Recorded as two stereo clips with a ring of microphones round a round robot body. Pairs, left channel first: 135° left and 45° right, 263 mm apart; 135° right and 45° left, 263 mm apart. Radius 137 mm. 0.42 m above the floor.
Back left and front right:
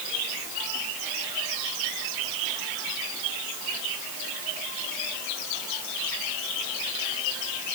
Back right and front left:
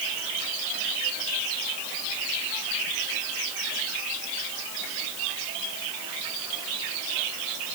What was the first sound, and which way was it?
Only background noise.